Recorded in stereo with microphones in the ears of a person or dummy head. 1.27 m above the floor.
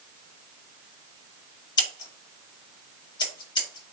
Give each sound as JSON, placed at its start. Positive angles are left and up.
{"t": 1.8, "sound": "scissors", "side_deg": 20, "distance_m": 1.7}